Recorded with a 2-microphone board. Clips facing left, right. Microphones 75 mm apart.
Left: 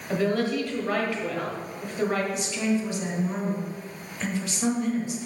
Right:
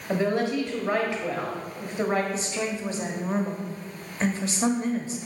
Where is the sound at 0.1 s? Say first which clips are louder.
Even; 25° right (ahead or behind), 1.3 m.